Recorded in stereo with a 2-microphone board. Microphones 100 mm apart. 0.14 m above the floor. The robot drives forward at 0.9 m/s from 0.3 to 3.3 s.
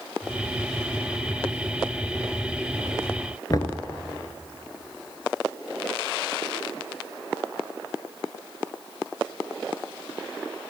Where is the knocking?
40° left (ahead or behind), 1.3 m.